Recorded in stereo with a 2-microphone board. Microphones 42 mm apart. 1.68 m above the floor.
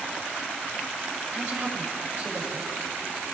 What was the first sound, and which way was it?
A woman speaking, 65° right (ahead or behind).